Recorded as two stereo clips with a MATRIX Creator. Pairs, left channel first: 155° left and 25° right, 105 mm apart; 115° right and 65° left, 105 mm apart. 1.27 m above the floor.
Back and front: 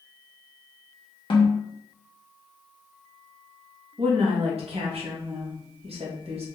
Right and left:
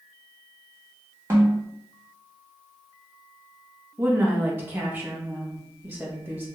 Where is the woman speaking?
5° right, 1.0 m.